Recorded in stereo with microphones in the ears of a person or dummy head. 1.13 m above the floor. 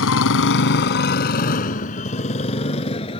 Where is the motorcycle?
75° left (ahead or behind); by 3.2 s 30° left (ahead or behind).